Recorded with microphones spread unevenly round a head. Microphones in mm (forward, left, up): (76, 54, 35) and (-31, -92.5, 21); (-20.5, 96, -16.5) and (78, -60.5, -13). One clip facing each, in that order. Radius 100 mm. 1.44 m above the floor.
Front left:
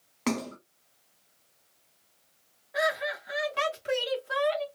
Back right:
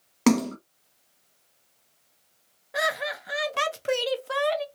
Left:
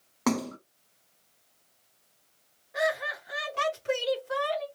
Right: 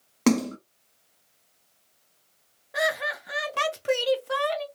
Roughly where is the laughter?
Right.